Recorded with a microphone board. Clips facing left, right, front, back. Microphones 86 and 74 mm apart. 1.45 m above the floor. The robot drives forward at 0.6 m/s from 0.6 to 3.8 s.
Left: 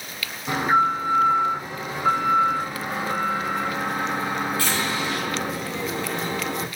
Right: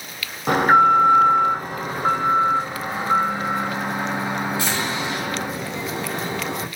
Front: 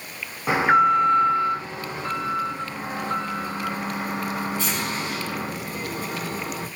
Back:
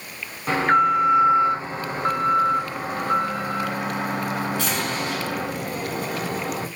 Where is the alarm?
75° right, 0.8 m; by 6.7 s 160° right, 1.9 m.